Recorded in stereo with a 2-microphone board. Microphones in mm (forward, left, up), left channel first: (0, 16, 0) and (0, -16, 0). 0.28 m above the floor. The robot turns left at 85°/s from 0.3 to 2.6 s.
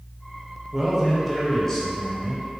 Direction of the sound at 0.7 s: 10° right (ahead or behind).